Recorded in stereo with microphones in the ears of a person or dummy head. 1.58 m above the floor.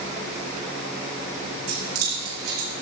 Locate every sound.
1.7 s keys jangling: 85° right, 5 m; by 2.7 s 80° right, 4 m